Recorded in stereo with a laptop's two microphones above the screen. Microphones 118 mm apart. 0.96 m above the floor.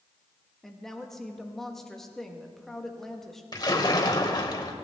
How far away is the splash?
About 1.5 m.